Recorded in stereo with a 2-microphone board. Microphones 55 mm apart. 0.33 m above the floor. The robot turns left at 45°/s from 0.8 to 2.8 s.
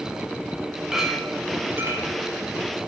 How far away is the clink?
About 1.8 m.